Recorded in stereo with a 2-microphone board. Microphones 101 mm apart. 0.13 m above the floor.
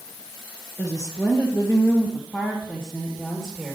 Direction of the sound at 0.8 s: 35° left (ahead or behind).